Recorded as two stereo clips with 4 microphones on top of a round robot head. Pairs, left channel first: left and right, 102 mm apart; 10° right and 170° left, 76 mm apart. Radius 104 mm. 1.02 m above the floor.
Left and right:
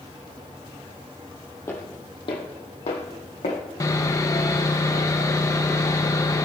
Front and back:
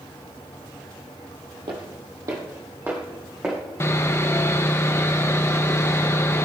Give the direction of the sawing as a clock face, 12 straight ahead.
11 o'clock.